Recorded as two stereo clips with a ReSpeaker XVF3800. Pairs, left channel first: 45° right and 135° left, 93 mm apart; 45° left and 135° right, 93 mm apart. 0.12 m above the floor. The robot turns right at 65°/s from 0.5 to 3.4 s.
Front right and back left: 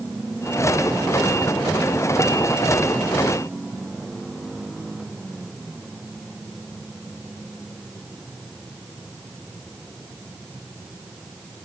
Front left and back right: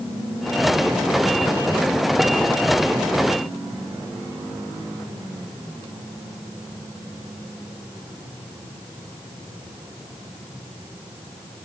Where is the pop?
I don't hear a pop.